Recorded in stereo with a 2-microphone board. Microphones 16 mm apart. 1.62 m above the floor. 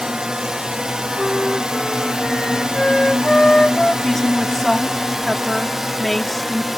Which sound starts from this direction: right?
A drone, at 0.0 s.